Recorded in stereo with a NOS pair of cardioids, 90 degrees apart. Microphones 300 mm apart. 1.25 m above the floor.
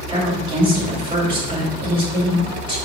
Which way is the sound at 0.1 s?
20° right.